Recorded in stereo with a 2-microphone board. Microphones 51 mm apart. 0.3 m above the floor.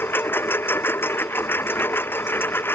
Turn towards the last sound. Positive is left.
turn(degrees=45)  # may be behind; listen again after turning